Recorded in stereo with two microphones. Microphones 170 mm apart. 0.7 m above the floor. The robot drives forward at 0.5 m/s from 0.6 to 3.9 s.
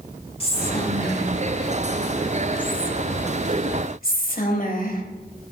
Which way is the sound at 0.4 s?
35° left (ahead or behind).